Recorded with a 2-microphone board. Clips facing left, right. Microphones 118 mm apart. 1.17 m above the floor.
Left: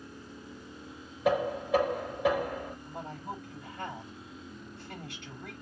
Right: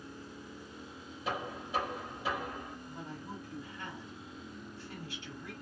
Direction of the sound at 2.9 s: 80° left.